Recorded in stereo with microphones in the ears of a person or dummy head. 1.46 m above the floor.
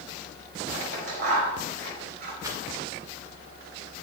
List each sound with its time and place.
0.7 s scissors: 55° right (ahead or behind), 5 m
2.4 s a rattle: 15° right (ahead or behind), 2 m